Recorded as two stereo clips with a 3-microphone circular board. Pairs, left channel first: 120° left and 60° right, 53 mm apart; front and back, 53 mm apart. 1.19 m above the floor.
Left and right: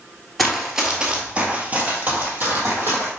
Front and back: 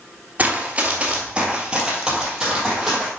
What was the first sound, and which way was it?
Running footsteps, 150° right.